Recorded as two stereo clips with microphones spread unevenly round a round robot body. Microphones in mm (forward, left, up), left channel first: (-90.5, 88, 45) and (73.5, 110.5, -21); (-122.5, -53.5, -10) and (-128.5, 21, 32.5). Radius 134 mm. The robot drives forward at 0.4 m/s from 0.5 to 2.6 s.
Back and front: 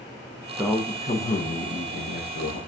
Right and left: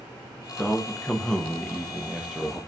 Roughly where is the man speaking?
Ahead right.